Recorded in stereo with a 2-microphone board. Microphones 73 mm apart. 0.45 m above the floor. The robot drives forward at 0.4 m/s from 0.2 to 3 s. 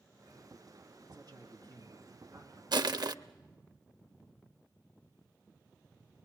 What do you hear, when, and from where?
1.1 s a man speaking: 55° right (ahead or behind), 5.5 m; by 2.6 s 50° right (ahead or behind), 6 m
2.7 s crushing: 70° right (ahead or behind), 0.5 m; by 3.1 s 65° right (ahead or behind), 0.6 m